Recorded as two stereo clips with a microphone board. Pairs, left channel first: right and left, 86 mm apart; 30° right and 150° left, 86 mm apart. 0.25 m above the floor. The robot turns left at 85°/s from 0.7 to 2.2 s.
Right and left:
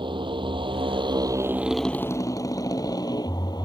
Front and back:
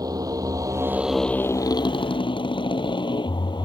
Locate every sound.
0.0 s a motorcycle: 110° left; by 3.7 s 55° right